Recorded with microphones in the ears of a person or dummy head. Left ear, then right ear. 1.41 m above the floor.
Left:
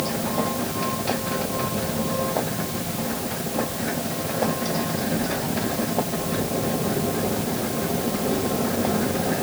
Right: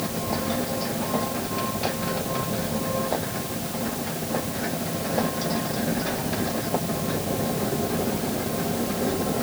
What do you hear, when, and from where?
Only background noise.